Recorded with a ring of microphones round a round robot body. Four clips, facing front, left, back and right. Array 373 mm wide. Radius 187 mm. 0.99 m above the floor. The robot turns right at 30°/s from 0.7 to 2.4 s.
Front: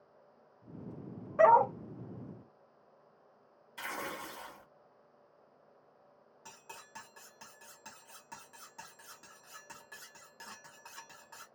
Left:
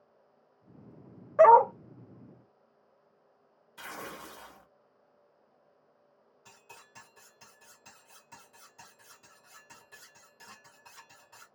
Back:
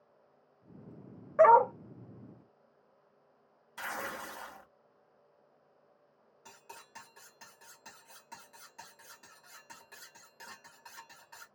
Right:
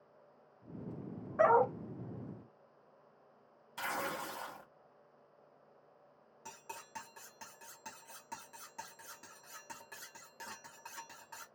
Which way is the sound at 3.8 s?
105° right.